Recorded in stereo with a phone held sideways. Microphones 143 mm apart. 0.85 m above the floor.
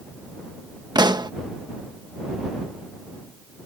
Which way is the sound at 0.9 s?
30° right (ahead or behind).